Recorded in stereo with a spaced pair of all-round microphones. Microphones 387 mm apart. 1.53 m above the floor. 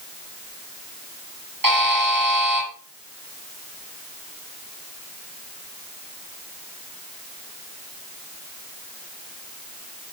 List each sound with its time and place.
1.6 s a buzzer: 60° right (ahead or behind), 9 m